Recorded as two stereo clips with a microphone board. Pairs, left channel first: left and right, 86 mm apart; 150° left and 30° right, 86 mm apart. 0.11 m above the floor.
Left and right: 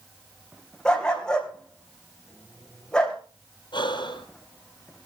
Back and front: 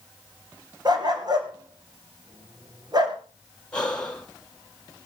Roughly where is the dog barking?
Ahead.